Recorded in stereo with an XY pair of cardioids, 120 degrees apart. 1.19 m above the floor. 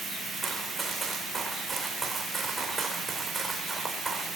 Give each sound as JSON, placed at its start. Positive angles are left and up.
{"t": 0.4, "sound": "running footsteps", "azimuth_deg": -25, "distance_m": 4.5}